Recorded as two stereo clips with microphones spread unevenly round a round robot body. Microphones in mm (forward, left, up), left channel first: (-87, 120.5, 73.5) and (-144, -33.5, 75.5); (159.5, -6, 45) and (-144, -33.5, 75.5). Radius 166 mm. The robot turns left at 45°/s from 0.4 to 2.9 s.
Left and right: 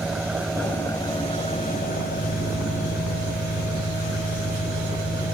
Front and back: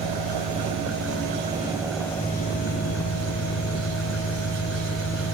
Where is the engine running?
165° left; by 5.3 s 50° left.